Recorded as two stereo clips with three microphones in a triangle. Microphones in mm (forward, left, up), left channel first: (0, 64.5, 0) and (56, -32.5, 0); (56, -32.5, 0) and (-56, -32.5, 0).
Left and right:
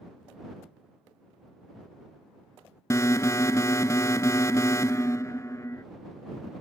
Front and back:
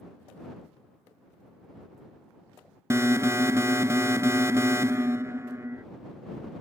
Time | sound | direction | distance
2.9 | an alarm | 145° left | ?